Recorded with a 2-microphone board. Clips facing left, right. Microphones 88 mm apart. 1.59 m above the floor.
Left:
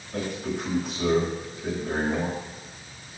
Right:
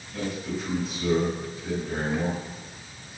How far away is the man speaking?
About 8.5 m.